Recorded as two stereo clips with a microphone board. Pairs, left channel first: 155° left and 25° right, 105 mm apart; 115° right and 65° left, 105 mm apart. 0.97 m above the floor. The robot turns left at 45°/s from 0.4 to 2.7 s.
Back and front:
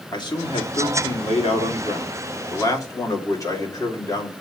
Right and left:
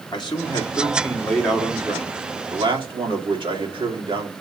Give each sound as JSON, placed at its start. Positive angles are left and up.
{"t": 0.1, "sound": "a man speaking", "azimuth_deg": -155, "distance_m": 2.0}